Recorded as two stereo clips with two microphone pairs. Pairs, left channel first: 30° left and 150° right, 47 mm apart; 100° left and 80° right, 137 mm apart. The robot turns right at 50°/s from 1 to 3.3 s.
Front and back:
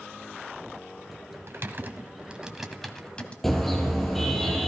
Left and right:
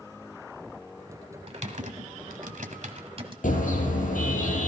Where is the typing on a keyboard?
120° right, 1.5 m; by 3.3 s 30° right, 1.5 m.